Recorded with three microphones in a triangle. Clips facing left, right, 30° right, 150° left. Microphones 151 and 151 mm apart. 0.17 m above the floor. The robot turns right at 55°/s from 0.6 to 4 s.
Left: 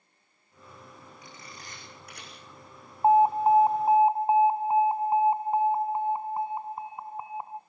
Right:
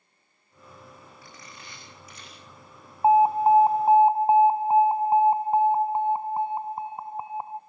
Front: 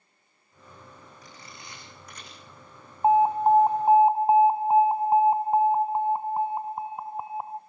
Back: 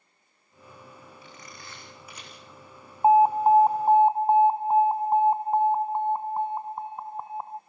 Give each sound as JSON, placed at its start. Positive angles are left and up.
{"t": 1.2, "sound": "a camera shutter", "azimuth_deg": 20, "distance_m": 7.0}
{"t": 3.0, "sound": "an alarm", "azimuth_deg": -150, "distance_m": 0.8}